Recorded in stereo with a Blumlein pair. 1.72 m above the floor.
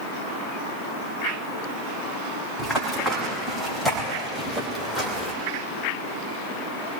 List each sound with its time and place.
2.6 s running footsteps: 5° right, 7 m; by 5.3 s 5° left, 3.5 m